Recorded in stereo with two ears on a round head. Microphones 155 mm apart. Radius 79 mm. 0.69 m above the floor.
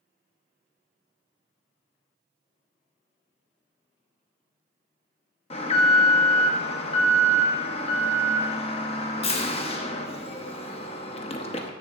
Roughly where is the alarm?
Left.